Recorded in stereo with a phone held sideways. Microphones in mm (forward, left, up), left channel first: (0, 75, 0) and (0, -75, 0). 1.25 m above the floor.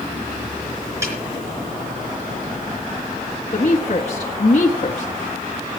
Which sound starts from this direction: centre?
A snare drum, at 1.0 s.